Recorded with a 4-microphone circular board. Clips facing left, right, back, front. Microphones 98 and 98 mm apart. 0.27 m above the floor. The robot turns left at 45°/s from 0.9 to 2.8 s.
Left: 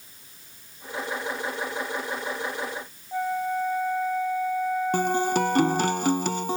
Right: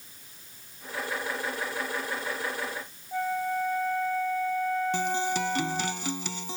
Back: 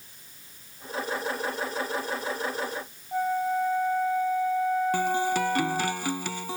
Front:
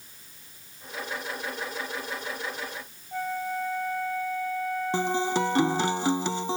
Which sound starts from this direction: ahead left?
A guitar, at 4.9 s.